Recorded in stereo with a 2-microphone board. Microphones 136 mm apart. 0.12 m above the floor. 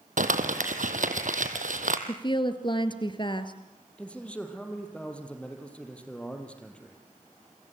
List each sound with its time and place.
0.2 s crumpling: 75° right (ahead or behind), 1.8 m
2.1 s a woman speaking: 35° left (ahead or behind), 1.8 m
4.0 s a man speaking: 10° left (ahead or behind), 3.5 m